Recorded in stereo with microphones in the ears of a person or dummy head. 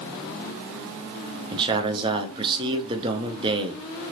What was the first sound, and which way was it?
A man speaking, 25° right (ahead or behind).